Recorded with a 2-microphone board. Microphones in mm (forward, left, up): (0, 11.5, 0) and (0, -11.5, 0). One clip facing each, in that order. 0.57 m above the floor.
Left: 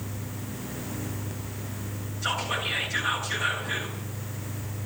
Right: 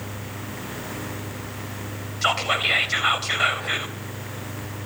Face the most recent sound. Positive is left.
turn(degrees=-65)  # may be behind; listen again after turning